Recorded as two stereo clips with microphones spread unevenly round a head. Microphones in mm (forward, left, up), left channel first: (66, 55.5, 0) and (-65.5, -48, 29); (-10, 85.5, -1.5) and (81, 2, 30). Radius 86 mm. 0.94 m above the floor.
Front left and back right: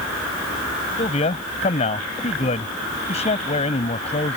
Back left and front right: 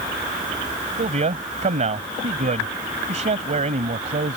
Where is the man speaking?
20° right.